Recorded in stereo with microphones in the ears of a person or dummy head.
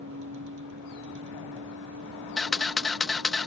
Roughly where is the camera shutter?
Centre.